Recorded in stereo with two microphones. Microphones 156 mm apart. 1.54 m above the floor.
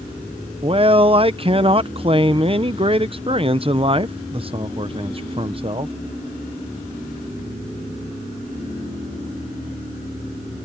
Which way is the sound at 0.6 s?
35° right (ahead or behind).